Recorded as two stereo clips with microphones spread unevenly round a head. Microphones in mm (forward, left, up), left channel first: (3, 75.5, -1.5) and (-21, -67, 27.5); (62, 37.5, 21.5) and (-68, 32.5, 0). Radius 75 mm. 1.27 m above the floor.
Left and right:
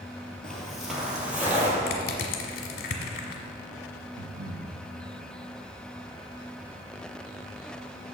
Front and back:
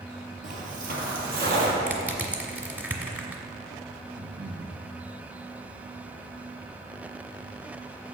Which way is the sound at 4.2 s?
115° right.